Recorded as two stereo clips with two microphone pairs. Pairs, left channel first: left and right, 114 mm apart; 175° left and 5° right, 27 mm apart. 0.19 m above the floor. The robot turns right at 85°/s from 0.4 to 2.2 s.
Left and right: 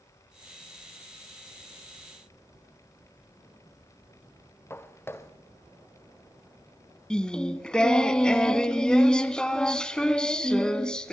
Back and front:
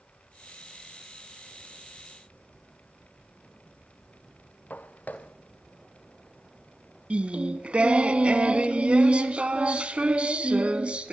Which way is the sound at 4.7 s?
160° left.